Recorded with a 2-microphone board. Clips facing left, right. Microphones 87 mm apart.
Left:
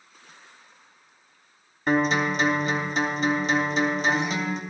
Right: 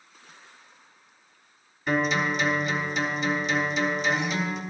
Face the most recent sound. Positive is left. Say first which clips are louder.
# left 3 dB
turn(degrees=45)  # may be behind; listen again after turning